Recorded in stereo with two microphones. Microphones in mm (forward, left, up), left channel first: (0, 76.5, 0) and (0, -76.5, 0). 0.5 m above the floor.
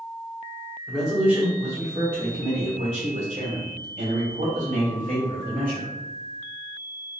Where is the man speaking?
Centre (ahead or behind), 1.4 m; by 5.9 s 65° right (ahead or behind), 3 m.